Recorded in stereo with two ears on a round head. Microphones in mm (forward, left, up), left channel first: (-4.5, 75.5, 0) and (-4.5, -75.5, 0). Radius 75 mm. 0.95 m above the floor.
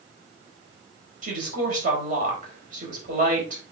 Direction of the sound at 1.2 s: 50° right (ahead or behind).